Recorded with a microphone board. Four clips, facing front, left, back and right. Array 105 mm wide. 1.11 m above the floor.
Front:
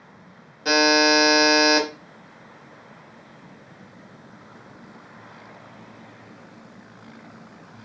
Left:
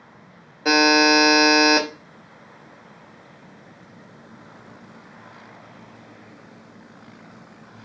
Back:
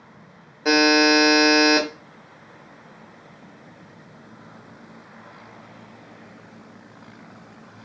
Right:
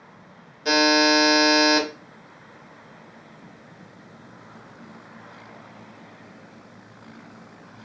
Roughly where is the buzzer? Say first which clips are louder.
Left 2 dB, back 2 dB; behind left.